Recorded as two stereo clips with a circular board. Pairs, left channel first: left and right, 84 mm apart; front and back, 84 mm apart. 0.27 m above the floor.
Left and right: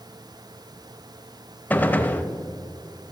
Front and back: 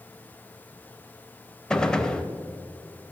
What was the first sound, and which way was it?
A gunshot, 65° left.